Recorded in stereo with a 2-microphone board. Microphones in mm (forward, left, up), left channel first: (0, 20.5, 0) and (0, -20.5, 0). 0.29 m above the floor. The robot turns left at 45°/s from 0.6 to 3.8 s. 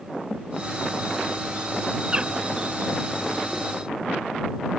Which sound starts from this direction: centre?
A bird, at 2.1 s.